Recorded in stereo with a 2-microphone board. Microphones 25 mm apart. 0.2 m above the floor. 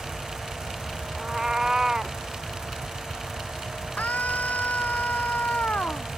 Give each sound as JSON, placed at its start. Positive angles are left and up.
{"t": 1.1, "sound": "a cat meowing", "side_deg": -30}
{"t": 4.0, "sound": "a scream", "side_deg": 85}